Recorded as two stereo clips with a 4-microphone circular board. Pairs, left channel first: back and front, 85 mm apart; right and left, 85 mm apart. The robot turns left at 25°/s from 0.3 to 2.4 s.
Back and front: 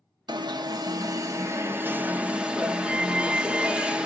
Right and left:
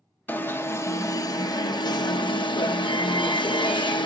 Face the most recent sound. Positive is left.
turn(degrees=-75)